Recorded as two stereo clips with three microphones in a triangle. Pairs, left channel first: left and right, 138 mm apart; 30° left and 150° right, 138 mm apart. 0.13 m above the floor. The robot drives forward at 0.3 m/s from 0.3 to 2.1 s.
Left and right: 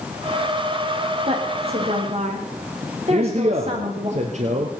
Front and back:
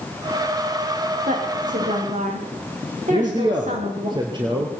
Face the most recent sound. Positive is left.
turn(degrees=-100)